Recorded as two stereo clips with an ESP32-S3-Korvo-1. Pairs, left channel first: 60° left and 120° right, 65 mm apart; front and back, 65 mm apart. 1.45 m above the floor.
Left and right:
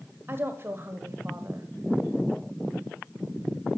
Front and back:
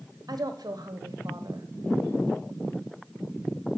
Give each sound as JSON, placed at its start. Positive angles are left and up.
{"t": 0.3, "sound": "a woman speaking", "azimuth_deg": -170, "distance_m": 1.1}